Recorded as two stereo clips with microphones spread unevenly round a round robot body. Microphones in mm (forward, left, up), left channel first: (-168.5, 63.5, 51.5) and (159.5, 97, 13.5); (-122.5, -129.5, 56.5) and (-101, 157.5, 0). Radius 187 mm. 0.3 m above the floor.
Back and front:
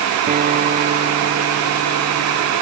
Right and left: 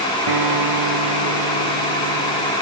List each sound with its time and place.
0.3 s a guitar: 70° left